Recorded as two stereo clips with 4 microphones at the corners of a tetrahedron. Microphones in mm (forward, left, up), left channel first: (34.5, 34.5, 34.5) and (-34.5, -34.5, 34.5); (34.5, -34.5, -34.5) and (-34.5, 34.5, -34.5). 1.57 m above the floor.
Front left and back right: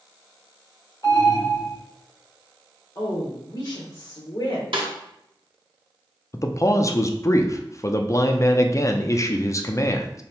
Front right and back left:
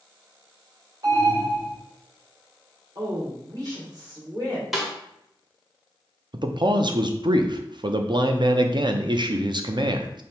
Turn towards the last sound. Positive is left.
turn(degrees=100)